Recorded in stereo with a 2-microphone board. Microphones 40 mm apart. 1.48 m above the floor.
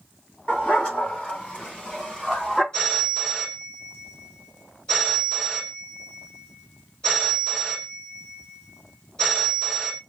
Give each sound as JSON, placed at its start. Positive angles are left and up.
{"t": 0.5, "sound": "a dog barking", "side_deg": 35, "distance_m": 3.5}
{"t": 2.7, "sound": "a phone ringing", "side_deg": 25, "distance_m": 4.5}